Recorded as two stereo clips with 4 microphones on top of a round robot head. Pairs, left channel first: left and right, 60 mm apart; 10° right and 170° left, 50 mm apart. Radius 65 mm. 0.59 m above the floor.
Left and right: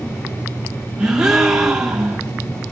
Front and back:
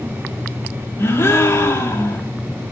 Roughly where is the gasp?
Ahead.